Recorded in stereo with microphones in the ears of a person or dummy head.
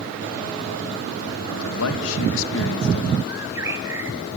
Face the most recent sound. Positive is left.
turn(degrees=-25)  # may be behind; listen again after turning